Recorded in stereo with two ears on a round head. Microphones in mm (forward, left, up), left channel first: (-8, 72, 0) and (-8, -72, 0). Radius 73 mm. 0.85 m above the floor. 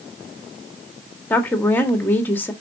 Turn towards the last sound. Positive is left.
turn(degrees=10)  # may be behind; listen again after turning